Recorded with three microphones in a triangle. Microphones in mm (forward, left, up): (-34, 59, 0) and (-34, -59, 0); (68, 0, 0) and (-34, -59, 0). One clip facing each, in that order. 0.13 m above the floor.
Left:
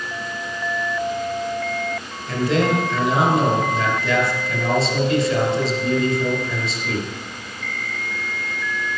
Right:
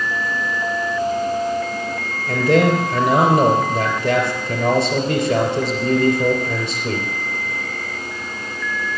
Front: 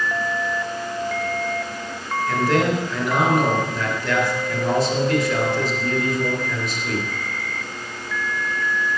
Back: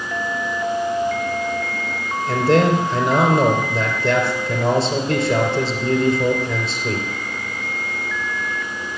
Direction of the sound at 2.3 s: 95° right.